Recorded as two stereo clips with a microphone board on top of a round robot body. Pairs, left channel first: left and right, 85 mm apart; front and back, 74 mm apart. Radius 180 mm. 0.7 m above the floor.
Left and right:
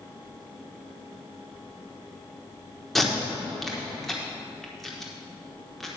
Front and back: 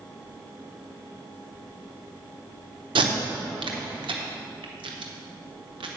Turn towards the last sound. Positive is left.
turn(degrees=175)